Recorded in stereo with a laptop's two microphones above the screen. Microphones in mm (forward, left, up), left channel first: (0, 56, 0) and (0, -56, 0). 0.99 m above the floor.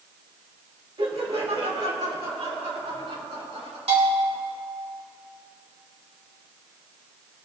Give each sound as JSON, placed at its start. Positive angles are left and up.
{"t": 1.0, "sound": "laughter", "side_deg": -55, "distance_m": 2.0}
{"t": 3.9, "sound": "a bell", "side_deg": -70, "distance_m": 3.0}